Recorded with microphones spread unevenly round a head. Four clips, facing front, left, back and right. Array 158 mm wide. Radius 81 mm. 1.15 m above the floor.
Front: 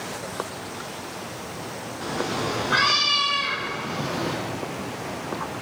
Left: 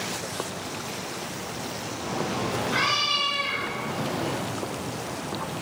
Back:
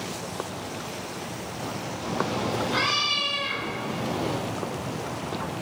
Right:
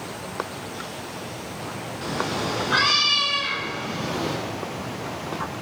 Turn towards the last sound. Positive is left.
turn(degrees=-10)